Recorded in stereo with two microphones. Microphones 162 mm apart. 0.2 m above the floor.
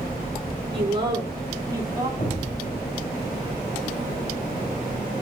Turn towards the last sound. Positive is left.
turn(degrees=55)  # may be behind; listen again after turning